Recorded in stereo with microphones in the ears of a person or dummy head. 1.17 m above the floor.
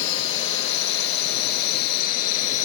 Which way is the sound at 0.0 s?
75° left (ahead or behind).